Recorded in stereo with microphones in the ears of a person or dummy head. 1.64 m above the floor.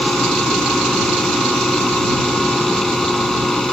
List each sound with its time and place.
0.0 s a fan: 5° left (ahead or behind)